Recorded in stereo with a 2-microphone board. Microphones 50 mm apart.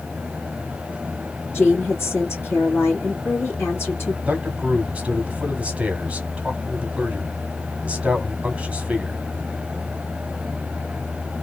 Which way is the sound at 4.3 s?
25° right (ahead or behind).